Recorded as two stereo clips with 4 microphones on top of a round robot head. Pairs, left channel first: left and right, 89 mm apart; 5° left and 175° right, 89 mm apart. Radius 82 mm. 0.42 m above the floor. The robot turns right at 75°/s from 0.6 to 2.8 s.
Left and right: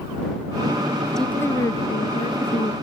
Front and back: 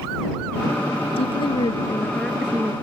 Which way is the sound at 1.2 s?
5° left.